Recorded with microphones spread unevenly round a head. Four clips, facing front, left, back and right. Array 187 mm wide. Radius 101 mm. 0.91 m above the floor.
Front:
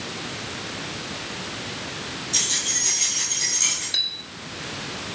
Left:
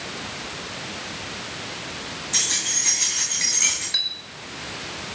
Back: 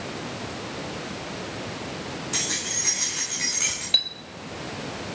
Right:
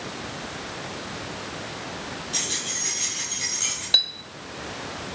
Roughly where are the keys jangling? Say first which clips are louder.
Left 1 dB, back 1 dB; behind left.